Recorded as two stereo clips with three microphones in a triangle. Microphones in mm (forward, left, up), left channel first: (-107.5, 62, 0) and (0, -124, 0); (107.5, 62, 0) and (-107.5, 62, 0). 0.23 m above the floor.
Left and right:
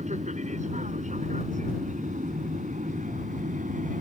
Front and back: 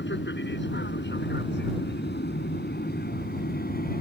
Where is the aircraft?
10° right; by 4.0 s 25° right.